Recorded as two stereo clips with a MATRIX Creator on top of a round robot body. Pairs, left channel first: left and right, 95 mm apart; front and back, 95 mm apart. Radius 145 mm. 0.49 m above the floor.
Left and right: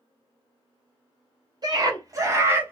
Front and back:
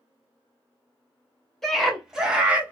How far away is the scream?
About 1.6 m.